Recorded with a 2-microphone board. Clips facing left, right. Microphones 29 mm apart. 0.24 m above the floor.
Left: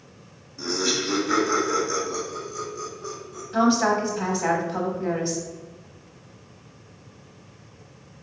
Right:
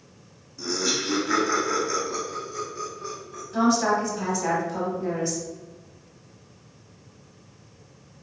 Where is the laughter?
25° left (ahead or behind), 1.7 m; by 3.4 s 50° right (ahead or behind), 2.5 m.